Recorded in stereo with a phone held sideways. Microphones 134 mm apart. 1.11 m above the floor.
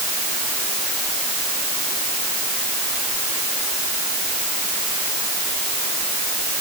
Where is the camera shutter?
I don't hear a camera shutter.